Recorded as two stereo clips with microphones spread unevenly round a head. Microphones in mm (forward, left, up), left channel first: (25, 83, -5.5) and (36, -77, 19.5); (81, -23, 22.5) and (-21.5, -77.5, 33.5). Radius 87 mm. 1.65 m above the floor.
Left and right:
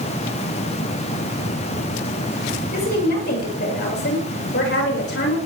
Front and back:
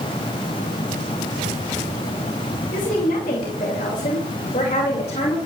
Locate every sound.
2.7 s a woman speaking: 65° left, 6.5 m; by 5.4 s 80° left, 6 m